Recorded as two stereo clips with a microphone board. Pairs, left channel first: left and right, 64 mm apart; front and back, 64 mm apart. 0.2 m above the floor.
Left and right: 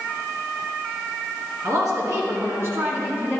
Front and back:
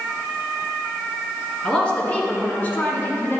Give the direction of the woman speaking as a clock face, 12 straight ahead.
3 o'clock.